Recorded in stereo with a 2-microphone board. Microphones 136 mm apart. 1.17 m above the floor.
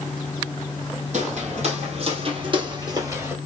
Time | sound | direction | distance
1.1 | footsteps | 60° right (ahead or behind) | 2 m